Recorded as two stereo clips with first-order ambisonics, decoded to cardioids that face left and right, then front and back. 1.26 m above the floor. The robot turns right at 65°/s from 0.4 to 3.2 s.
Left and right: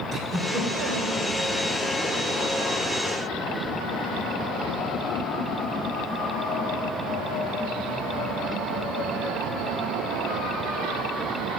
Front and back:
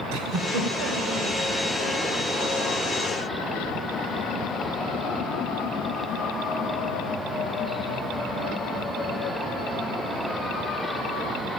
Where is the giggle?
170° right, 3 m; by 1.2 s 115° right, 3 m.